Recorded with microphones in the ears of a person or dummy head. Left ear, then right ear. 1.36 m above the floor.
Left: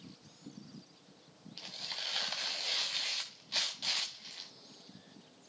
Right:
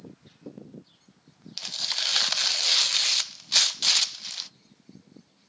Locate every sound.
1.6 s tearing paper: 55° right (ahead or behind), 0.5 m